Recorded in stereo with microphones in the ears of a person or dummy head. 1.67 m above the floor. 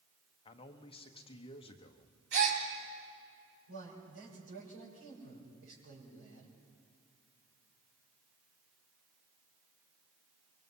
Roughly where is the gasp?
Right.